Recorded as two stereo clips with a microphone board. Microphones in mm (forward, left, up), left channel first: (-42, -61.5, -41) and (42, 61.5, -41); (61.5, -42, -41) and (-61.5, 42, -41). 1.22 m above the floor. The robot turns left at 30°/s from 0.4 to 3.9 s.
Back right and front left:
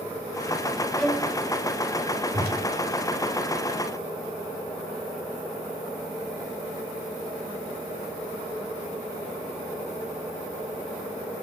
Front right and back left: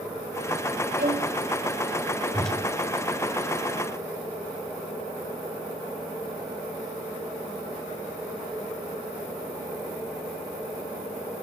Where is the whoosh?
55° left, 2.5 m; by 2.6 s 45° left, 2.5 m.